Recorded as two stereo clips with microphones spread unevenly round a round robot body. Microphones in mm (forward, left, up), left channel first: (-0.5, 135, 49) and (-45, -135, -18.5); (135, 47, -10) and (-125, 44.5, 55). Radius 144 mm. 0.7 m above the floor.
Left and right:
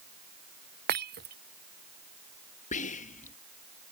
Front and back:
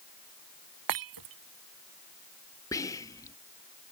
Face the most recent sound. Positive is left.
turn(degrees=15)